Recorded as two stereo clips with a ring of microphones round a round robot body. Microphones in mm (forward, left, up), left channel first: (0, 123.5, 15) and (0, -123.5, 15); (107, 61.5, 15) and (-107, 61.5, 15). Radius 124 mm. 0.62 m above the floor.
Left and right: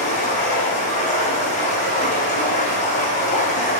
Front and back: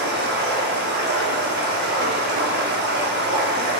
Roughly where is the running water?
Behind left.